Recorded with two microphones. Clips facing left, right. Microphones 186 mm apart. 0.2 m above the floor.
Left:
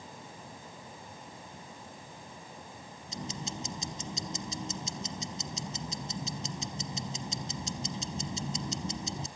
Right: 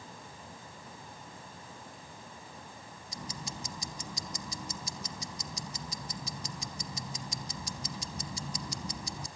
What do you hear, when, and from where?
3.1 s ticking: 25° left (ahead or behind), 0.8 m